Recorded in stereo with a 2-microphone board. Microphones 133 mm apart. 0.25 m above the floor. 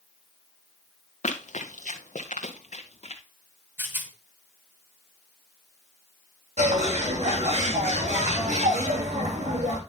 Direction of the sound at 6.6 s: 65° right (ahead or behind).